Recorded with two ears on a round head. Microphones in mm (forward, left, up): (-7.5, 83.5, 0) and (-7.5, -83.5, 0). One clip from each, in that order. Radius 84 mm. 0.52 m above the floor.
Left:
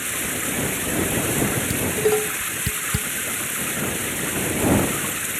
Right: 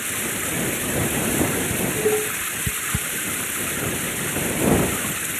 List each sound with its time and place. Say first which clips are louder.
0.0 s running water: even; centre (ahead or behind)
1.7 s dishes clattering: left 3 dB; 85° left